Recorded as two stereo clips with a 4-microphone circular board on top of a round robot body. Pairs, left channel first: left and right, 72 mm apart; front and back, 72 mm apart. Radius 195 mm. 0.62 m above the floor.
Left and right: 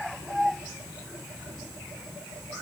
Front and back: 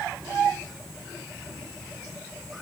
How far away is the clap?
I don't hear a clap.